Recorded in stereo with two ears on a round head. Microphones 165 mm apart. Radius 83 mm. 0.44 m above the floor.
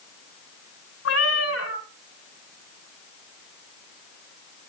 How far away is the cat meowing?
About 1.8 m.